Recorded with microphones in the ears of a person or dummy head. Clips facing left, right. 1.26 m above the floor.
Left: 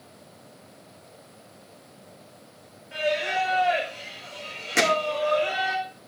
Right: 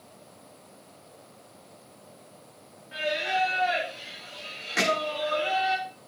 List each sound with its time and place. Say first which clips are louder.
2.9 s singing: left 3 dB; 50° left (ahead or behind), 7 m
4.8 s hammering: left 3 dB; 50° left (ahead or behind), 2.0 m